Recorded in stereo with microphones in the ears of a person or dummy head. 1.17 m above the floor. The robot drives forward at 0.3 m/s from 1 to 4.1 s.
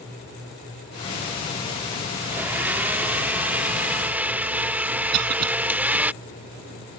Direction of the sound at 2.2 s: 5° right (ahead or behind).